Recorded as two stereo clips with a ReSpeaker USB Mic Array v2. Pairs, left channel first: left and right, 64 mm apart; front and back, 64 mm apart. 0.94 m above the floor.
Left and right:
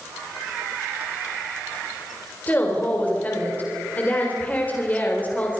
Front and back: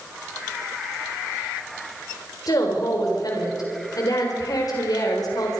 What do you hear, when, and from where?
2.5 s a woman speaking: 25° left, 3.5 m